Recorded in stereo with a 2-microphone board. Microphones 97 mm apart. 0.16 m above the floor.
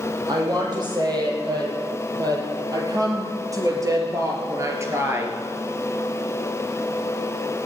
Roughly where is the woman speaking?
Right.